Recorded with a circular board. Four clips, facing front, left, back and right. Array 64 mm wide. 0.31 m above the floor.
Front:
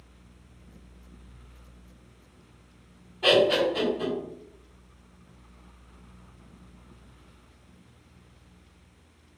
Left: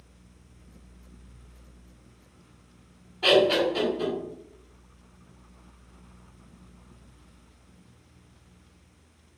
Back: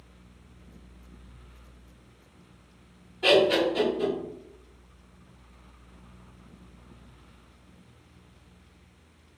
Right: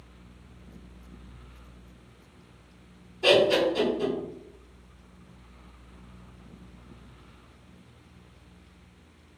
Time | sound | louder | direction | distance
3.2 | laughter | even, even | 75° left | 1.8 m